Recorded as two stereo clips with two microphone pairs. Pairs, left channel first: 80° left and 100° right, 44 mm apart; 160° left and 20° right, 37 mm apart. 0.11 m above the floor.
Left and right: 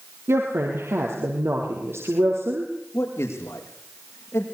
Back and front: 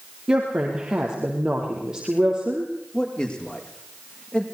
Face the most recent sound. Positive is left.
turn(degrees=95)